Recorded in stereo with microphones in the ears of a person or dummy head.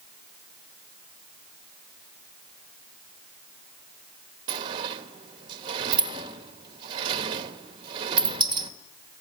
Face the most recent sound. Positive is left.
turn(degrees=-30)  # may be behind; listen again after turning